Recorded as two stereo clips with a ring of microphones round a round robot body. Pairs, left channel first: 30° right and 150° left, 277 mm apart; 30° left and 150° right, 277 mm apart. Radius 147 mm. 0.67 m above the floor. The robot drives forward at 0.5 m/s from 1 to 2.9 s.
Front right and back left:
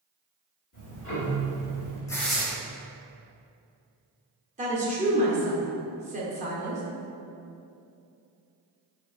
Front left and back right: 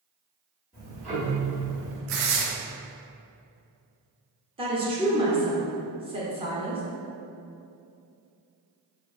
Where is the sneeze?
No sneeze in this recording.